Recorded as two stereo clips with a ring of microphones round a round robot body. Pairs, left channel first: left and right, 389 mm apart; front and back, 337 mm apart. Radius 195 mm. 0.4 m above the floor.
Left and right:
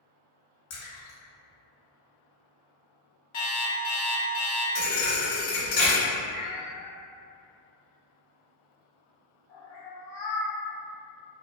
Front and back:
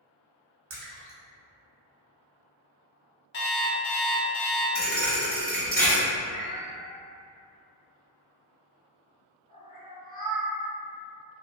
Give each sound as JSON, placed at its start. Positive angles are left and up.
{"t": 0.7, "sound": "a splash", "azimuth_deg": 125, "distance_m": 1.0}
{"t": 3.3, "sound": "an alarm clock", "azimuth_deg": 35, "distance_m": 0.6}
{"t": 4.8, "sound": "a thud", "azimuth_deg": 65, "distance_m": 1.3}
{"t": 6.3, "sound": "a cat meowing", "azimuth_deg": 65, "distance_m": 1.8}